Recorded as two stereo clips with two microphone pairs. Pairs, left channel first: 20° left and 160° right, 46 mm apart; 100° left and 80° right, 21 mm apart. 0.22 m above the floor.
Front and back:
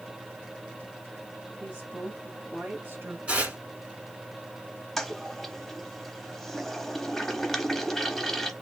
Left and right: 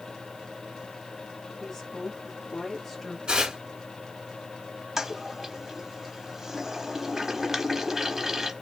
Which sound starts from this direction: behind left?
A woman speaking, at 1.6 s.